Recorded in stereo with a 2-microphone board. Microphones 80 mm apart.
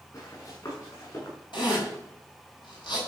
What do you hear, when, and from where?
0.1 s running footsteps: 45° left (ahead or behind), 7.5 m; by 1.4 s 50° left (ahead or behind), 8.5 m
1.5 s a zipper: 85° left, 5 m